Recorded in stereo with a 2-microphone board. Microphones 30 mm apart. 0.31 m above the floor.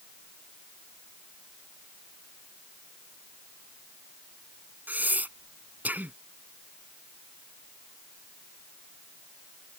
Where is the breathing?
70° right (ahead or behind).